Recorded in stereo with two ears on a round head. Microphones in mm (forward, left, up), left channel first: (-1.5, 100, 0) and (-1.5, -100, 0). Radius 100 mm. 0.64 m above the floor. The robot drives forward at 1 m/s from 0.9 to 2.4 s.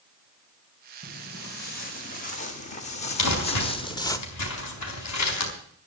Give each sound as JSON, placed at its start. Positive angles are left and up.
{"t": 1.0, "sound": "footsteps", "side_deg": 50, "distance_m": 3.0}
{"t": 3.2, "sound": "crumpling", "side_deg": 85, "distance_m": 4.5}